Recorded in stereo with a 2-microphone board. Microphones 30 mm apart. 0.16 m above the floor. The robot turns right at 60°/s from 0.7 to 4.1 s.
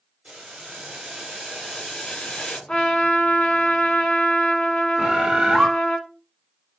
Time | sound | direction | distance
0.2 | boiling | 55° right | 2.5 m
2.7 | a trumpet | 40° left | 0.9 m
5.0 | a bird | 25° right (ahead or behind) | 0.5 m